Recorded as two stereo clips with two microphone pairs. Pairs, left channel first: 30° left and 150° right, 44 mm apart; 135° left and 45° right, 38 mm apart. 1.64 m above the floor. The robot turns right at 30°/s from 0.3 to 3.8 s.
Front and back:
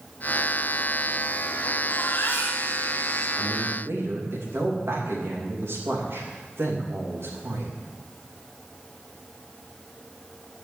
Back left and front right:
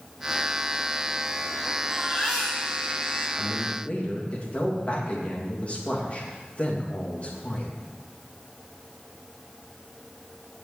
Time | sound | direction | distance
1.9 | a baby crying | 45° left | 5.5 m
3.4 | a man speaking | 175° left | 3 m